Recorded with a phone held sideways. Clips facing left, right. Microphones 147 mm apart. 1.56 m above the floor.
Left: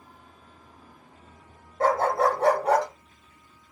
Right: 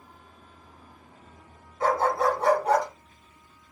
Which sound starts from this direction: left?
A dog barking, at 1.8 s.